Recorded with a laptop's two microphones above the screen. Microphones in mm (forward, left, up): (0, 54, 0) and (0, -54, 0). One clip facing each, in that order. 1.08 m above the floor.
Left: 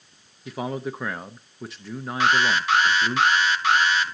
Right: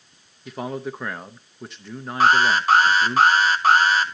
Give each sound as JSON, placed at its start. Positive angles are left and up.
{"t": 0.5, "sound": "a man speaking", "side_deg": 0, "distance_m": 0.6}
{"t": 2.2, "sound": "an alarm", "side_deg": -40, "distance_m": 0.9}